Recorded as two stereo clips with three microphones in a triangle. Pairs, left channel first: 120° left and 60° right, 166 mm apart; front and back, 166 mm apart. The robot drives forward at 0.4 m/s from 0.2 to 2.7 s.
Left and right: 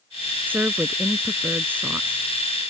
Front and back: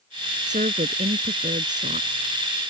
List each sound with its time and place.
0.5 s a woman speaking: 140° right